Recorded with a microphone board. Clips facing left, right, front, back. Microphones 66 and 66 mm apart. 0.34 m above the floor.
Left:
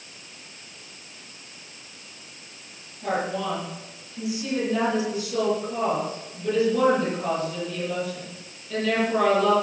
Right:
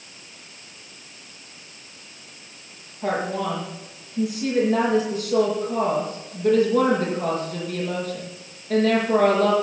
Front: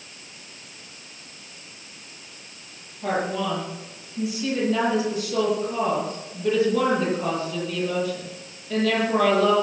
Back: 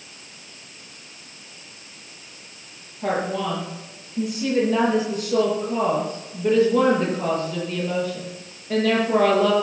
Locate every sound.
3.0 s a woman speaking: 135° right, 9 m